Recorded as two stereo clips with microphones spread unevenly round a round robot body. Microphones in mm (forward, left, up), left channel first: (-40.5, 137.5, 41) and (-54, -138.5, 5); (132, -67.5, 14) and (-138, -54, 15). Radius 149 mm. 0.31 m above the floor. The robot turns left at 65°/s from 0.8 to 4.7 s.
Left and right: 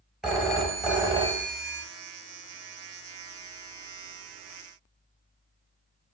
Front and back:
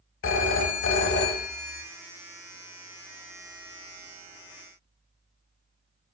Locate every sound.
0.2 s a phone ringing: 15° right, 0.9 m; by 1.8 s 80° right, 0.9 m